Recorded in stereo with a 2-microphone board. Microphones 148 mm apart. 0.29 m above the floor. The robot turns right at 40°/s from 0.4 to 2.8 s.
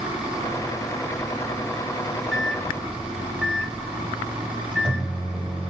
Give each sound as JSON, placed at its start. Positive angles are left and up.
{"t": 2.3, "sound": "a microwave", "side_deg": 0, "distance_m": 1.1}